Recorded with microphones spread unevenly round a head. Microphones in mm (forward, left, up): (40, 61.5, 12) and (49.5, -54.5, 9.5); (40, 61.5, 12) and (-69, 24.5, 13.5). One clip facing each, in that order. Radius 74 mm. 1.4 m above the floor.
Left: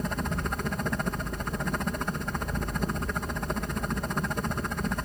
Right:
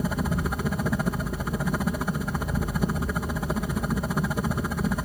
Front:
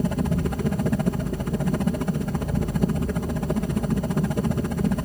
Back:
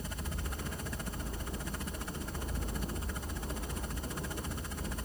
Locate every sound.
0.0 s a helicopter: straight ahead